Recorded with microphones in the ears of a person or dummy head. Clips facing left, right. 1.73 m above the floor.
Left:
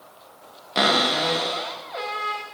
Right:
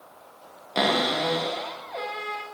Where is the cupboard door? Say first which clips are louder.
Left 1 dB; 5° left (ahead or behind), 1.9 m.